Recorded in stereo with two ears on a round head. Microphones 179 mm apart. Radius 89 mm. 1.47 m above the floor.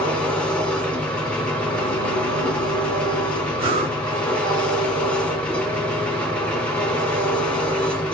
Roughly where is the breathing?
Right.